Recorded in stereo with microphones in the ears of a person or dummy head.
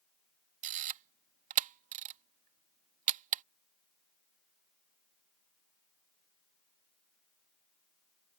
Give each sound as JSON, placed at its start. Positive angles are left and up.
{"t": 0.6, "sound": "a camera shutter", "side_deg": -40}